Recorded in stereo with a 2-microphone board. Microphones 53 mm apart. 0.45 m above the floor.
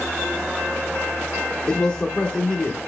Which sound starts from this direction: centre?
A man speaking, at 1.7 s.